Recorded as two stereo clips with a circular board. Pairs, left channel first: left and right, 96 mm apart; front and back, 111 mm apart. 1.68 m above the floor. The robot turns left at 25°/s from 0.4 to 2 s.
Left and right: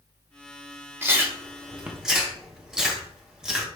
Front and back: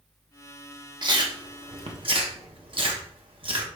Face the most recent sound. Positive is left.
turn(degrees=-170)